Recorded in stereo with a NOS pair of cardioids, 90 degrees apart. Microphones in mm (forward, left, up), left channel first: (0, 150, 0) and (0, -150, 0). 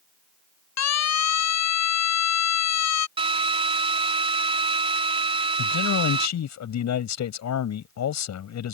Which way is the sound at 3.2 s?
20° right.